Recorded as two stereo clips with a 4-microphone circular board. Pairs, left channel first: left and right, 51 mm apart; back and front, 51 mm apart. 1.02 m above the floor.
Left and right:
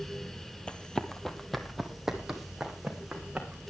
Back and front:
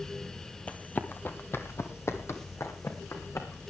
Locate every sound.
0.7 s running footsteps: 140° left, 1.2 m; by 3.6 s 165° right, 3 m